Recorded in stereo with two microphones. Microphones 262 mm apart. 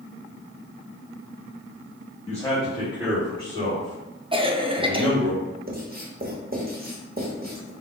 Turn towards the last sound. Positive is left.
turn(degrees=-35)  # may be behind; listen again after turning